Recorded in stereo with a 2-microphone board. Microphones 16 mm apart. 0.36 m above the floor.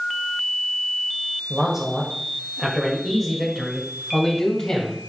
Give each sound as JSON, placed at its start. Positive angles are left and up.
{"t": 1.5, "sound": "a man speaking", "side_deg": -25, "distance_m": 1.5}